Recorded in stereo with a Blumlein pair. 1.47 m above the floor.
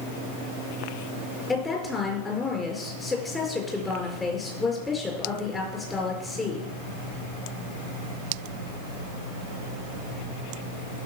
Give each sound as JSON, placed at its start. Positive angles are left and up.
{"t": 1.5, "sound": "a woman speaking", "azimuth_deg": 15, "distance_m": 5.0}